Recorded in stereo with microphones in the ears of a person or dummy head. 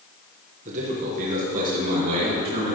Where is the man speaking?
40° right (ahead or behind), 1.6 m; by 2.8 s 50° right (ahead or behind), 2.5 m.